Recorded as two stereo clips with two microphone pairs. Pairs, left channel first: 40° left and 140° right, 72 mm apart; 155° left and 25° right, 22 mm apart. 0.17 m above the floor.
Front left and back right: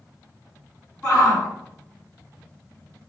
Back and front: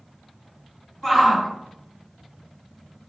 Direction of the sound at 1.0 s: 105° left.